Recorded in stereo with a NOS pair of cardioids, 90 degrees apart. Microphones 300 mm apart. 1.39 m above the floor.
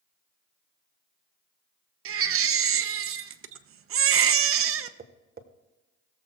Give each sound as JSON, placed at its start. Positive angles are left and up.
{"t": 2.0, "sound": "a baby crying", "azimuth_deg": -50, "distance_m": 0.8}
{"t": 5.0, "sound": "tapping", "azimuth_deg": -35, "distance_m": 1.3}